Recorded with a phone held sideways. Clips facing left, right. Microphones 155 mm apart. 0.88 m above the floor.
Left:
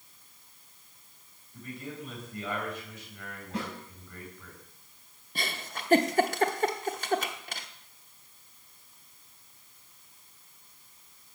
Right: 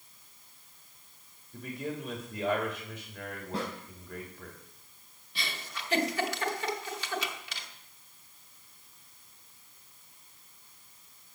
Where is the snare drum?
30° right (ahead or behind), 5.5 m.